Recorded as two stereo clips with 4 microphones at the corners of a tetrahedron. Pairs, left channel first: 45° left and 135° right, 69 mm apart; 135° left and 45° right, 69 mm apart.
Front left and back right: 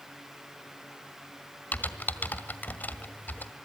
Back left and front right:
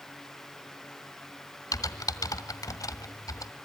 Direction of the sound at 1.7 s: 110° left.